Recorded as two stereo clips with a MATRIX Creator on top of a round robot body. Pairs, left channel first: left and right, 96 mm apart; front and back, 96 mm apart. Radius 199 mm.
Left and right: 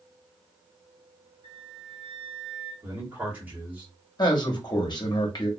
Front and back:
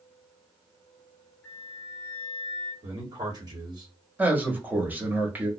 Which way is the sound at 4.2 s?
115° left.